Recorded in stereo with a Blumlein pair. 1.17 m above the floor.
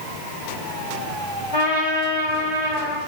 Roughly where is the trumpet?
Ahead left.